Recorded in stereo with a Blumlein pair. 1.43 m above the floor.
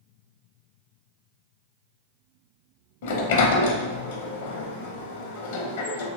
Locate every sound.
3.0 s a sliding door: 55° left, 0.5 m